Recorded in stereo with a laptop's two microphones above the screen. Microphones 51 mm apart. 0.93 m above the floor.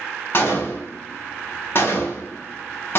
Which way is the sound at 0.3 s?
45° left (ahead or behind).